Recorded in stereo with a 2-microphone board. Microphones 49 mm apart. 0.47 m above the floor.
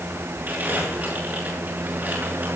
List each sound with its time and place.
0.5 s crumpling: 35° right (ahead or behind), 9 m